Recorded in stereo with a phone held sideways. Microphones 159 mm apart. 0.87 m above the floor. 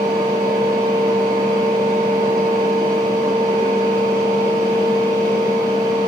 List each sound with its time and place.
0.0 s a fan: 20° right (ahead or behind), 5.5 m